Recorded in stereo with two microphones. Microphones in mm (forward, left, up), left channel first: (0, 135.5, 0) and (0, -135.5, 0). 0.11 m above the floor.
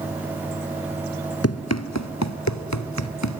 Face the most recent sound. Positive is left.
turn(degrees=80)